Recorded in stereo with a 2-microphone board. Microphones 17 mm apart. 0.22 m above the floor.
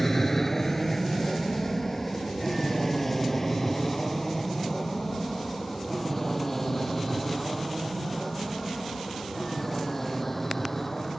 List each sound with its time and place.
0.0 s an aircraft: 15° left (ahead or behind); by 11.2 s 10° left (ahead or behind)